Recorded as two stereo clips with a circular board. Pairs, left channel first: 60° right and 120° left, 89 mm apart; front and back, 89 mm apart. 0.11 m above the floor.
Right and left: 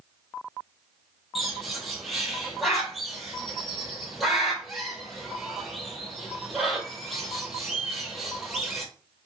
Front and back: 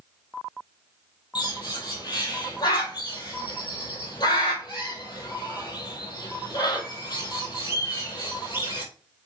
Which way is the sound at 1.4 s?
30° left.